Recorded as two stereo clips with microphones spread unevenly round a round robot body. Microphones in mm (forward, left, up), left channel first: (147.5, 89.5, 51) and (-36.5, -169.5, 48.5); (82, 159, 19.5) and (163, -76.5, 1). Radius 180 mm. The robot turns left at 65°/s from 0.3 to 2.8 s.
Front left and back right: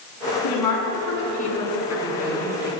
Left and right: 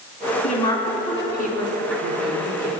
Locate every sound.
0.4 s a woman speaking: 50° left, 5 m; by 2.7 s 95° right, 5 m